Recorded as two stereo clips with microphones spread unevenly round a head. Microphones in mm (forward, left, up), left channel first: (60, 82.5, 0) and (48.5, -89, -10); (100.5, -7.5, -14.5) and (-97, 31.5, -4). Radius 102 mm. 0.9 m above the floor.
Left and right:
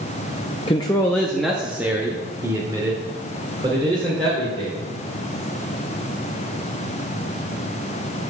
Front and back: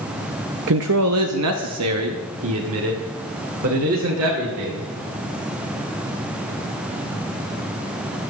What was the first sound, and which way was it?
A man speaking, 150° left.